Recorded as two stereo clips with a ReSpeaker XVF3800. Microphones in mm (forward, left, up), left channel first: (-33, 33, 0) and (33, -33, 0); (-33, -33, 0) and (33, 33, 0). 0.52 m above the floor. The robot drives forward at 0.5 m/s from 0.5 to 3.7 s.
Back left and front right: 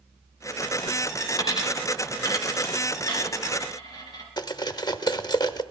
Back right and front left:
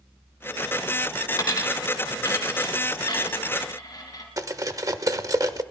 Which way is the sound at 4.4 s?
95° left.